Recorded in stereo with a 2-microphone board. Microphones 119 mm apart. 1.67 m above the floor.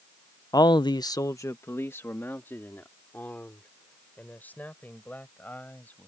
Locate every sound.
0.5 s a man speaking: 30° left (ahead or behind); by 6.1 s 15° left (ahead or behind)